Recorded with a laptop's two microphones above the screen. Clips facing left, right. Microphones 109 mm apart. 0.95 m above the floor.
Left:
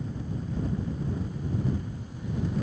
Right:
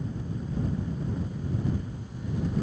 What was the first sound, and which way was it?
Only background noise.